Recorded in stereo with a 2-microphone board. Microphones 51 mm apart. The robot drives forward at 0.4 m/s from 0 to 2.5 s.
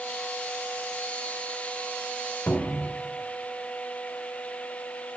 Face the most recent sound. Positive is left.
turn(degrees=45)  # may be behind; listen again after turning